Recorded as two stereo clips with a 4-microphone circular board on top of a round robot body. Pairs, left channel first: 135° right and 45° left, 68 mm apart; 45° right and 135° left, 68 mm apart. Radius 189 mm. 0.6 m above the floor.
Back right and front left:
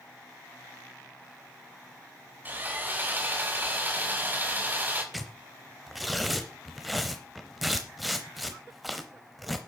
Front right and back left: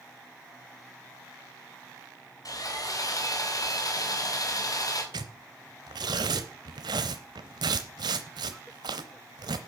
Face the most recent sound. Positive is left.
turn(degrees=135)